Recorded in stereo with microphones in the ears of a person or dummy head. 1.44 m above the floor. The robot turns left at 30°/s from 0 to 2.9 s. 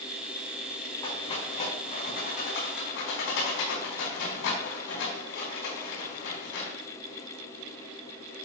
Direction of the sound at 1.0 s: 20° left (ahead or behind).